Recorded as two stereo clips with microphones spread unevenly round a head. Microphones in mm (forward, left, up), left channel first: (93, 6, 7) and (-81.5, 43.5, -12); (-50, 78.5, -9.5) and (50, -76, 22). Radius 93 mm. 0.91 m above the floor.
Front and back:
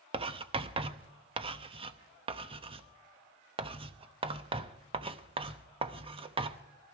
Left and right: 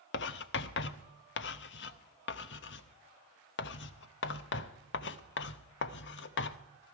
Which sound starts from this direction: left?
Writing, at 0.1 s.